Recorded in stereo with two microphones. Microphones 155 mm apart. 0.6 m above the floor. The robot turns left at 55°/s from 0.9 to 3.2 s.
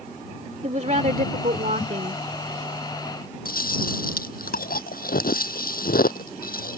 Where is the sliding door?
I don't hear a sliding door.